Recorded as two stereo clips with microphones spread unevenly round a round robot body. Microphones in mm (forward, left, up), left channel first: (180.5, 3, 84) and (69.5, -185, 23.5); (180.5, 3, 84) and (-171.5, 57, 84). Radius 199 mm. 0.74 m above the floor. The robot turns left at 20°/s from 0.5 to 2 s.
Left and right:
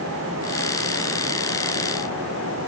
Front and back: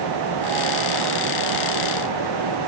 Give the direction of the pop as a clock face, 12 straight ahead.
No pop in this recording.